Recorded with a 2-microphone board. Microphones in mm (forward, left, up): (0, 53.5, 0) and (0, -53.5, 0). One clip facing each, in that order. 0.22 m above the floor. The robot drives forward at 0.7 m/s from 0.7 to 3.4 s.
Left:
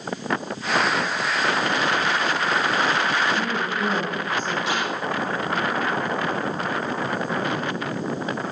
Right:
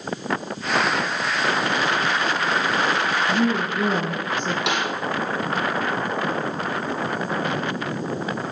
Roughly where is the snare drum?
Right.